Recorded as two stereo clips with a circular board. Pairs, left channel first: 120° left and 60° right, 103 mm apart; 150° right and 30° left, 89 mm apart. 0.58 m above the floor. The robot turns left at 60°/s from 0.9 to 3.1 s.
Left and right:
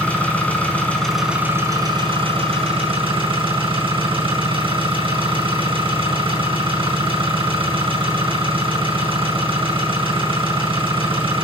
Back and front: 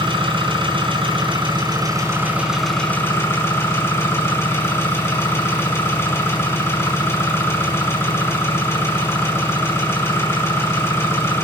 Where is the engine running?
45° left, 5 m; by 11.4 s 90° right, 5 m.